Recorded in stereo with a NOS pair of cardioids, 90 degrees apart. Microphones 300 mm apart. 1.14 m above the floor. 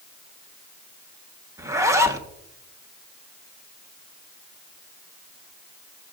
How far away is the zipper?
About 1.2 m.